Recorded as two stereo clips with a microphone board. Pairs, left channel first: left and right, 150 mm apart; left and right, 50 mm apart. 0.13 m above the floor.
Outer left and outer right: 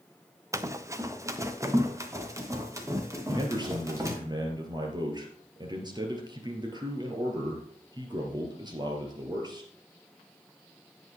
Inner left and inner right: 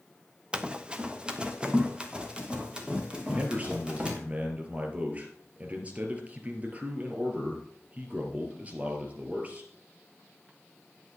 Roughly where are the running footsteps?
Right.